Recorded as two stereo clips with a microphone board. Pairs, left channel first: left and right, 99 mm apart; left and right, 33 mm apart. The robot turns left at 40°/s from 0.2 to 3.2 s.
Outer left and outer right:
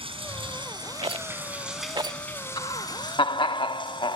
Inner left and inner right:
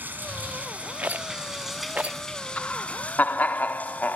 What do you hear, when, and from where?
0.0 s running water: 110° right, 6 m; by 4.2 s 130° left, 6 m
1.0 s a rattle: 65° right (ahead or behind), 0.6 m; by 2.2 s 40° right (ahead or behind), 0.6 m
2.6 s laughter: 50° left (ahead or behind), 1.7 m; by 4.2 s 55° left (ahead or behind), 1.7 m